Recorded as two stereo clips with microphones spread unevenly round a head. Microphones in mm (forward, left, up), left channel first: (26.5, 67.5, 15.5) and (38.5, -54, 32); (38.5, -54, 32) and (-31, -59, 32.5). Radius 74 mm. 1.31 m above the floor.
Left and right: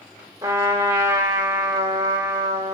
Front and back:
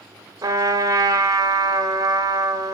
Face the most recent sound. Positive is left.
turn(degrees=-145)